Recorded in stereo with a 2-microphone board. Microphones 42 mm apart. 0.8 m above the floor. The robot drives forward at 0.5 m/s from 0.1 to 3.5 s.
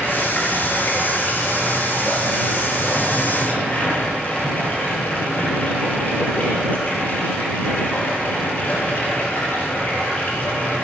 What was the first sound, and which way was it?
Running water, 55° left (ahead or behind).